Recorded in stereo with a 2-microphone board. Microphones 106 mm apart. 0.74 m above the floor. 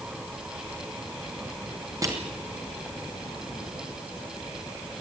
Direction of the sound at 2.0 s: 30° right (ahead or behind).